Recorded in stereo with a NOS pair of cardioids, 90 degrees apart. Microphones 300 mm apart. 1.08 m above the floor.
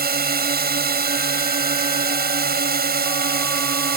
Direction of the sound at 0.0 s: 30° right.